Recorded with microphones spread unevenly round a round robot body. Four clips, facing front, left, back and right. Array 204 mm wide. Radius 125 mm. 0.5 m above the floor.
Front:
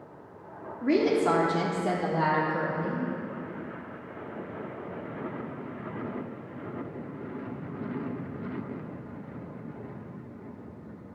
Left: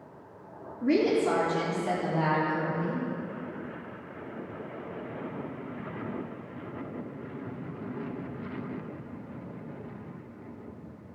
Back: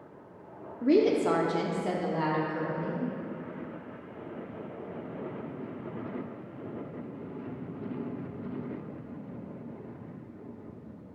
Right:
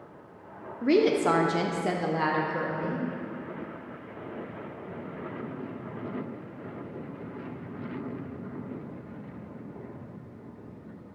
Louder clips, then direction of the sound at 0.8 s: Right 2 dB, even; 165° right.